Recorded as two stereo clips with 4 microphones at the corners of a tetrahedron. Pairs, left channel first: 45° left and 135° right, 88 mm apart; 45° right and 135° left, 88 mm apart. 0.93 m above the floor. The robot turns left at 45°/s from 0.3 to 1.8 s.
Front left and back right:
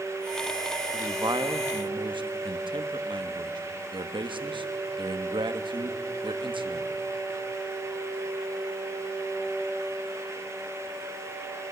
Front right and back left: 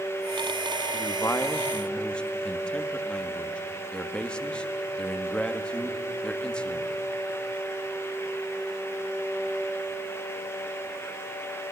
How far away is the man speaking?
About 1.3 m.